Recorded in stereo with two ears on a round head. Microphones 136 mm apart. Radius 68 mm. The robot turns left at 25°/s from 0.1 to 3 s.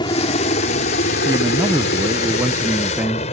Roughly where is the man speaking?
Centre.